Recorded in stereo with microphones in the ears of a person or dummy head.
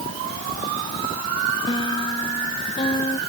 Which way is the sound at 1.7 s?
20° left (ahead or behind).